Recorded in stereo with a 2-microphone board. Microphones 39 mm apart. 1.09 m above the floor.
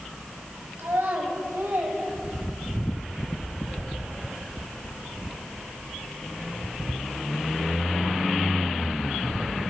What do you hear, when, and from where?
0.8 s a child speaking: 80° right, 3.5 m; by 2.9 s 50° right (ahead or behind), 2.0 m